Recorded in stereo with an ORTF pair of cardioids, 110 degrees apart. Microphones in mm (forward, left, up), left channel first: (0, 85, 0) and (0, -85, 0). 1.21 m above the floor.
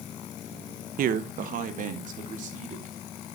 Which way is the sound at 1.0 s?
60° right.